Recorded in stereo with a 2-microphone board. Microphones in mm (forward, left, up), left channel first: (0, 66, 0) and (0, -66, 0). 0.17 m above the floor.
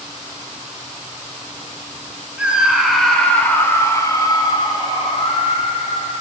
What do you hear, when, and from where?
2.4 s a scream: 10° right (ahead or behind), 1.7 m; by 6.1 s 45° left (ahead or behind), 2.5 m